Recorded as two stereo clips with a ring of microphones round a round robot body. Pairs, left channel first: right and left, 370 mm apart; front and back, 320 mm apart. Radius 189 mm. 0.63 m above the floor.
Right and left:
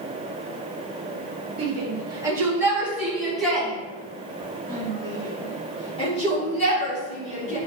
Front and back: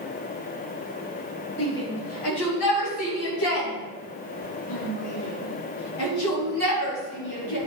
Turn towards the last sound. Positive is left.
turn(degrees=-20)